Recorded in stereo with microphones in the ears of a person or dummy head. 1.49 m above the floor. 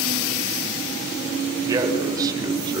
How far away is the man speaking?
About 7 m.